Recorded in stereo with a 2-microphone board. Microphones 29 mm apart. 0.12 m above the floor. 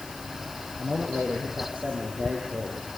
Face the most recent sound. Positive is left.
turn(degrees=-70)  # may be behind; listen again after turning